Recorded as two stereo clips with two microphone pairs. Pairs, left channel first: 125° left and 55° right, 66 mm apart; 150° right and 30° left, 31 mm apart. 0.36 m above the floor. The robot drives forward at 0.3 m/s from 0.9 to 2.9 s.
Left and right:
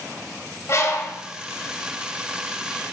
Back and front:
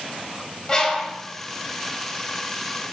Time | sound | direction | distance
0.7 | a bird | 150° left | 1.5 m